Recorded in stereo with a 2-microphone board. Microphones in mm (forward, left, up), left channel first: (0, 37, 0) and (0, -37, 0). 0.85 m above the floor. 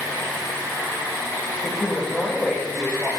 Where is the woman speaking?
10° left (ahead or behind), 3.5 m.